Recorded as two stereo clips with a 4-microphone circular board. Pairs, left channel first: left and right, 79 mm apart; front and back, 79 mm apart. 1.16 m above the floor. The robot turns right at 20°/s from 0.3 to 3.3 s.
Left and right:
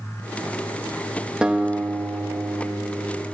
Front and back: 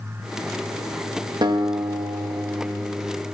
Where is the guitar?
170° right, 1.6 m; by 3.2 s 135° right, 1.6 m.